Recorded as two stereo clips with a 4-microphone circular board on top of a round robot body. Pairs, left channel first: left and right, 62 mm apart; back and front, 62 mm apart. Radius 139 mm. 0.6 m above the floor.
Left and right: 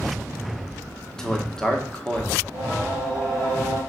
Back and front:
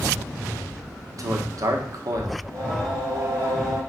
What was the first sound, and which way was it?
A man speaking, 10° left.